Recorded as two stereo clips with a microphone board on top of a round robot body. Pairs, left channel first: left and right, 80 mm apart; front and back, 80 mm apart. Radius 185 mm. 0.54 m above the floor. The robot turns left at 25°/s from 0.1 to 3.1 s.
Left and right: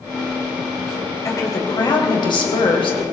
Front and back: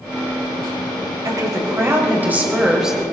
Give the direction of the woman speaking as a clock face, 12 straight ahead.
7 o'clock.